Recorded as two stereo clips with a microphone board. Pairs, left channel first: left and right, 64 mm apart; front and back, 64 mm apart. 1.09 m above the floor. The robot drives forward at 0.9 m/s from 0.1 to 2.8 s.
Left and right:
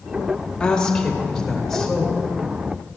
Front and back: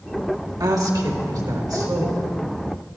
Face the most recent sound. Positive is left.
turn(degrees=175)